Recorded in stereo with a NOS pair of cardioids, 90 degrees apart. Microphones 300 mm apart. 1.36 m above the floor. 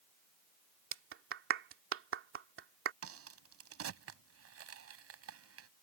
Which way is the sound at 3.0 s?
55° right.